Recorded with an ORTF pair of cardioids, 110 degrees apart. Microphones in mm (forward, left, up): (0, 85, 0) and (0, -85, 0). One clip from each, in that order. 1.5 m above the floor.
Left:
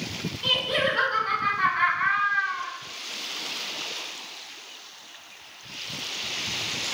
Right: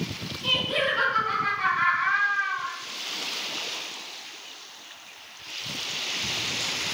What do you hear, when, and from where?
0.4 s laughter: 65° left, 1.3 m